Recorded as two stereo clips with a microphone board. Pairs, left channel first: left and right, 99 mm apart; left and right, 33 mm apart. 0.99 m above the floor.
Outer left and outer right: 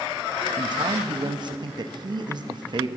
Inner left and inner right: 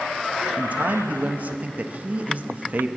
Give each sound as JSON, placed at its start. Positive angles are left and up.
{"t": 0.6, "sound": "a man speaking", "side_deg": -50, "distance_m": 0.8}